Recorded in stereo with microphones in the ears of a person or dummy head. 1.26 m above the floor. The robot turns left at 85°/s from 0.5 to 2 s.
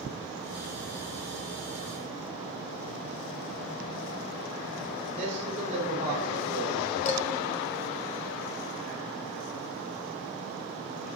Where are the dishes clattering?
40° left (ahead or behind), 0.7 m.